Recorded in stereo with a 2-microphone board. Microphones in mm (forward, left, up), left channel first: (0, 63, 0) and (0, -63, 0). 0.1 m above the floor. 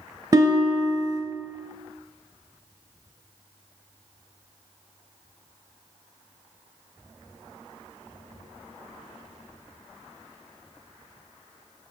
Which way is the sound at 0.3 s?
30° right (ahead or behind).